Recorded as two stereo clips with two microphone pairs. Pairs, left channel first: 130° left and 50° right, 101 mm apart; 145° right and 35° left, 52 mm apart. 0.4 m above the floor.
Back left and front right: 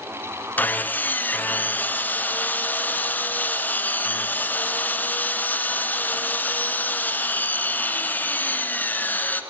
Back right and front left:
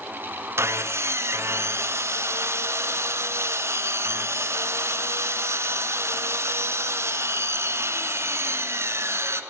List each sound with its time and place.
0.6 s sawing: 60° left, 1.4 m